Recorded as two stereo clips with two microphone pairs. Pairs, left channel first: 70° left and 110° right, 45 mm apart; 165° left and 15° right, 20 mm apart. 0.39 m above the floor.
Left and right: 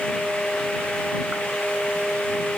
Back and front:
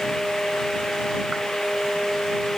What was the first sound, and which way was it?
Only background noise.